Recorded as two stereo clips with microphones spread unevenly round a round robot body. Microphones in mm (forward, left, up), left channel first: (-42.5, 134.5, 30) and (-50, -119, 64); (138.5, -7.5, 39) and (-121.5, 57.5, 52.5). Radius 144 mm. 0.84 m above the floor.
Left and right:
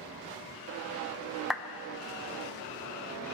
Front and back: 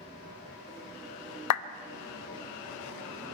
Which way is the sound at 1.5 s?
Straight ahead.